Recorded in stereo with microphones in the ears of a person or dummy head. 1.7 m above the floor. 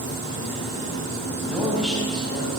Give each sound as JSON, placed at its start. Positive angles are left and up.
{"t": 0.0, "sound": "a fan", "side_deg": 20, "distance_m": 1.8}
{"t": 1.5, "sound": "a man speaking", "side_deg": 0, "distance_m": 4.5}